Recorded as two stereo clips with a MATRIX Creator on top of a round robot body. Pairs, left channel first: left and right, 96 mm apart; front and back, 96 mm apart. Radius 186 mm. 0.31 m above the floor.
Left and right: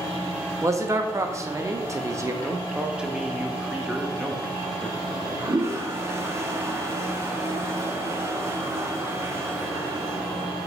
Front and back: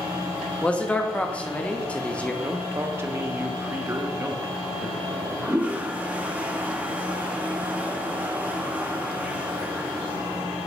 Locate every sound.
0.6 s a man speaking: 65° right, 1.0 m
2.4 s a man speaking: 160° right, 0.9 m
5.0 s a toilet flushing: 120° right, 1.1 m